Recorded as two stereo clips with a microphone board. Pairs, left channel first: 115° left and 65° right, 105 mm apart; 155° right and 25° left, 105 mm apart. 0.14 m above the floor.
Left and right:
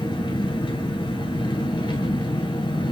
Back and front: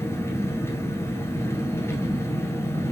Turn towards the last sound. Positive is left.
turn(degrees=145)